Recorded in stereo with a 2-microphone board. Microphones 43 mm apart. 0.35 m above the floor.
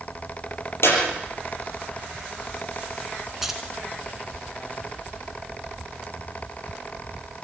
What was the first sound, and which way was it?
A clap, 75° left (ahead or behind).